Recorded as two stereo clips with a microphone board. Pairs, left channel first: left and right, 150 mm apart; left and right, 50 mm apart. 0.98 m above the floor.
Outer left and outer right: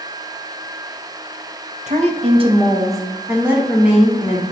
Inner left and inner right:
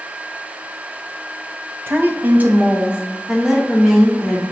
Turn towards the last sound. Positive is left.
turn(degrees=-5)  # may be behind; listen again after turning